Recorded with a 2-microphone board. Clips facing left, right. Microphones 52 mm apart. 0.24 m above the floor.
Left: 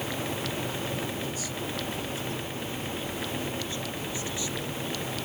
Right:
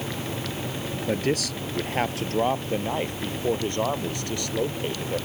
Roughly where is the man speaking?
Right.